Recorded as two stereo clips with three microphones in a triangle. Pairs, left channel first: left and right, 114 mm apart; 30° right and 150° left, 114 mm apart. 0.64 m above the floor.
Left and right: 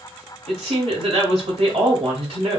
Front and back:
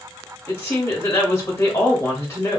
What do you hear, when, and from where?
0.5 s a woman speaking: 95° right, 2.5 m